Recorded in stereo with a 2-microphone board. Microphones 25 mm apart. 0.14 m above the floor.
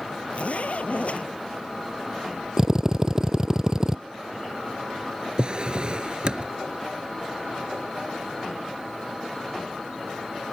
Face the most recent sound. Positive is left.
turn(degrees=-45)  # may be behind; listen again after turning